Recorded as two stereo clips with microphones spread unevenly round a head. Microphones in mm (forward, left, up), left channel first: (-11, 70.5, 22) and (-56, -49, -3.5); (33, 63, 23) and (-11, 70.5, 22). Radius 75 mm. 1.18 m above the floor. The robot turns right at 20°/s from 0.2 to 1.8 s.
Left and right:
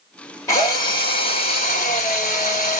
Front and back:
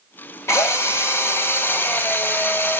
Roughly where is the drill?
Ahead.